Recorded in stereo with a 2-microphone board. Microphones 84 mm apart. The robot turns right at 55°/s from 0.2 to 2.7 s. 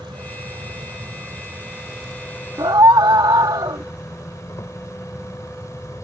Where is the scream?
60° right (ahead or behind); by 3.8 s 55° right (ahead or behind).